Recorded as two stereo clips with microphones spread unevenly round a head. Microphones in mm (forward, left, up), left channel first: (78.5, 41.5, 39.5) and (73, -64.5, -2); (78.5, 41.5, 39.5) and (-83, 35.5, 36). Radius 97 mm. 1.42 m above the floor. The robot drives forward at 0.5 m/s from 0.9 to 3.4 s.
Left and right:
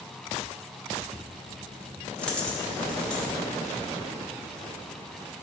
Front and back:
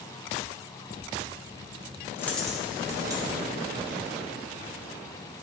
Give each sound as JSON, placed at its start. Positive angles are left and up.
{"t": 2.2, "sound": "a dropped coin", "azimuth_deg": 65, "distance_m": 0.8}